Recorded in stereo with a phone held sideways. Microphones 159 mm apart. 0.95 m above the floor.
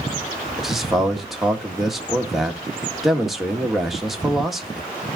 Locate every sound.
0.6 s a man speaking: centre (ahead or behind), 1.3 m